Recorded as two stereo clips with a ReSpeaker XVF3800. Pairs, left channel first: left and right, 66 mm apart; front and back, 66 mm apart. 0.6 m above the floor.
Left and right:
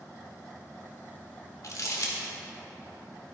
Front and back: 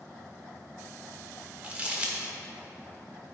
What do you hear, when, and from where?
1.6 s crumpling: 115° left, 1.2 m